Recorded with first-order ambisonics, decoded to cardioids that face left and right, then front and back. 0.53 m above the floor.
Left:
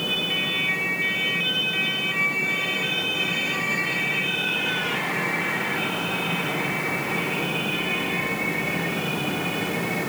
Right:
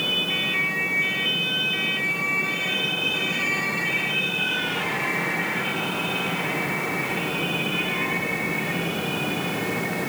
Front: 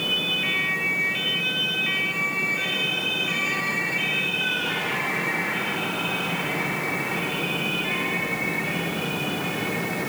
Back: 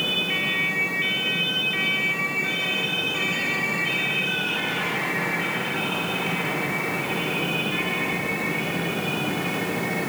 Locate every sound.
Only background noise.